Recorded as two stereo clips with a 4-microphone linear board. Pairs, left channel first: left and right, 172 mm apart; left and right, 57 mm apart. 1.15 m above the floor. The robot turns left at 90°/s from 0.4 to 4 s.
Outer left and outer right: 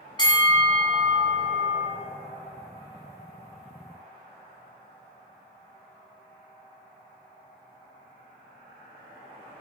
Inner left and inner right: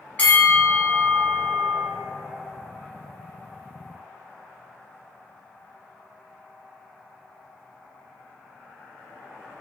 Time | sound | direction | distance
0.2 | a bell | 45° left | 0.6 m